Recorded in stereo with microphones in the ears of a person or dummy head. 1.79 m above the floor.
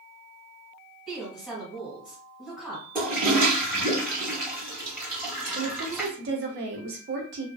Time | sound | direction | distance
1.1 | a woman speaking | centre (ahead or behind) | 1.5 m
3.0 | a toilet flushing | 10° right (ahead or behind) | 0.6 m
5.5 | a woman speaking | 40° right (ahead or behind) | 0.5 m